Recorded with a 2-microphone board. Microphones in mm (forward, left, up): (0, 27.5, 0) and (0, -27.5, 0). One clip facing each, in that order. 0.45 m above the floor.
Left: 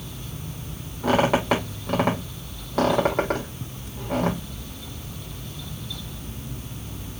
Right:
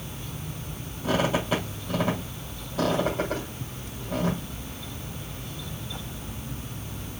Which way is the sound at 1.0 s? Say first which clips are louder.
Left 5 dB; 80° left.